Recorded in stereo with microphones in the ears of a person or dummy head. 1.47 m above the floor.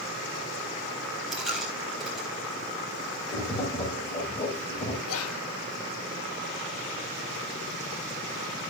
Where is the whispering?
80° left, 1.2 m.